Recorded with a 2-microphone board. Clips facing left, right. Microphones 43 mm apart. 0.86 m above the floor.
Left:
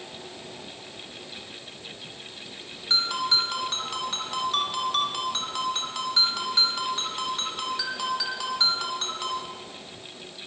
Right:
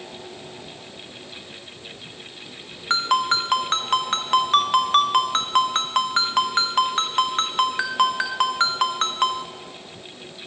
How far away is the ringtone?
About 1.1 m.